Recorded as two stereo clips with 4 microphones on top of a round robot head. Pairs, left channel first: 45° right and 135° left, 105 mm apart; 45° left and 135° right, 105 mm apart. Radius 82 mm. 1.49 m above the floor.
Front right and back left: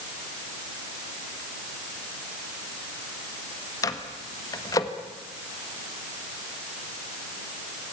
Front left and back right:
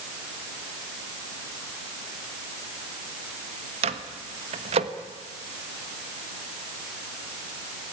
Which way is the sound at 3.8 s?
105° right.